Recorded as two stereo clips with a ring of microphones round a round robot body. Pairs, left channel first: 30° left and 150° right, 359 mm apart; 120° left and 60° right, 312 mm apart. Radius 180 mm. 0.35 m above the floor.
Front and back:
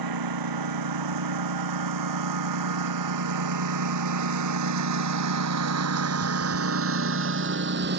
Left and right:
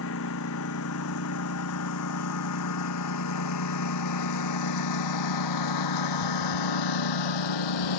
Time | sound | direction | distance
0.0 | a lawn mower | 175° left | ?